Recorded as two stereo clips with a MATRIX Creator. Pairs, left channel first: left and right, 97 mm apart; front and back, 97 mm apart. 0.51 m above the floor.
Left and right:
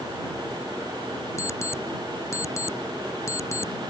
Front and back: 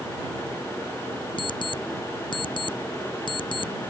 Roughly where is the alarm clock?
Ahead left.